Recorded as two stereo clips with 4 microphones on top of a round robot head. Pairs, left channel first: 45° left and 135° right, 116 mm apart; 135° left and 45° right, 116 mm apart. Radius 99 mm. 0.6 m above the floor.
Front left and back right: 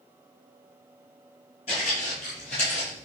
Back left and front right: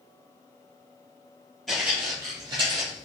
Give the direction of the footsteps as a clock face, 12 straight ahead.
10 o'clock.